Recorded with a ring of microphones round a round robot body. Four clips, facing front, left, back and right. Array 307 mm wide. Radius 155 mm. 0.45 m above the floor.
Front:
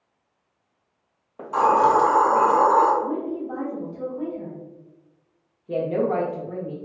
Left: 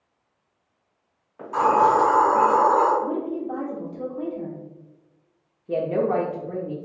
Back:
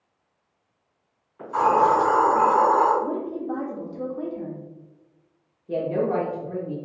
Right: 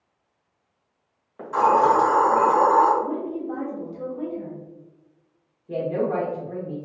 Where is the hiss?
25° right, 1.2 m.